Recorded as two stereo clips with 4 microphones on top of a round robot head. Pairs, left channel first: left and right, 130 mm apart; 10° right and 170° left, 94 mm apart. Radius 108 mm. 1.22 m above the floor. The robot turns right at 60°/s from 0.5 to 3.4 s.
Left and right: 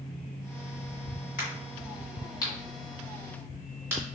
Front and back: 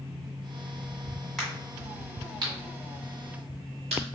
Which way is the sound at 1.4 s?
80° left.